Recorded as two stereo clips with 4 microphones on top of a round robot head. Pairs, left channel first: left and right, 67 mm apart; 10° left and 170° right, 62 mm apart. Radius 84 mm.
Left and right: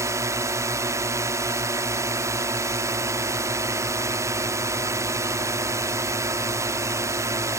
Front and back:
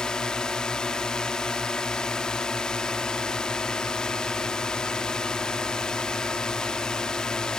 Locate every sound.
0.0 s a drone: 70° right